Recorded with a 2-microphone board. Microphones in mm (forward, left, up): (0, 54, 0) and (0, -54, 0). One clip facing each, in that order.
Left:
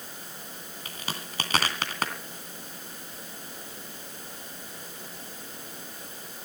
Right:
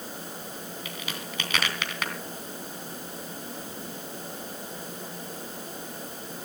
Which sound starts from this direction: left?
A crack, at 0.8 s.